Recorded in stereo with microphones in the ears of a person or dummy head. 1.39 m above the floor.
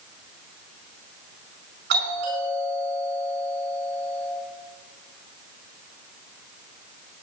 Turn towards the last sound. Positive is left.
turn(degrees=-45)  # may be behind; listen again after turning